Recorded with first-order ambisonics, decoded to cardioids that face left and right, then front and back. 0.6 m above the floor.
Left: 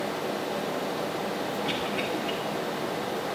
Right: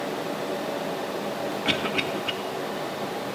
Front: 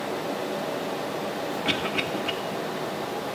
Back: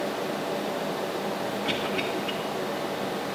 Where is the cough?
60° right, 1.0 m.